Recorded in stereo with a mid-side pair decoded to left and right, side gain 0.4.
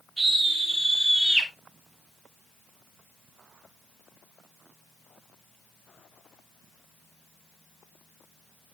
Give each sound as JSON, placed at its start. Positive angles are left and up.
{"t": 0.2, "sound": "a scream", "azimuth_deg": -15, "distance_m": 3.0}